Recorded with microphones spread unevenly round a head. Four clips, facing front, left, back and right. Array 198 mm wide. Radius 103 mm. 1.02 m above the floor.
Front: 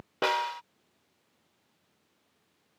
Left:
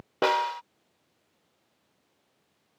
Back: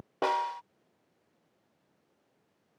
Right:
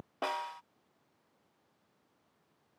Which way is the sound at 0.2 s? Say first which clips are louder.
Left 12 dB, even; 70° left.